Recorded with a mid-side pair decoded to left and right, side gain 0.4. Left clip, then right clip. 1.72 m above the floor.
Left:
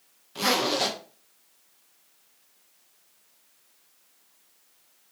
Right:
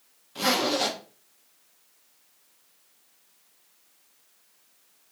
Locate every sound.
0.3 s a zipper: 15° left, 1.2 m